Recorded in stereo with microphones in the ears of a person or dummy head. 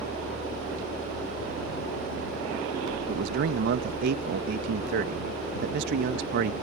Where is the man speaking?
60° right (ahead or behind).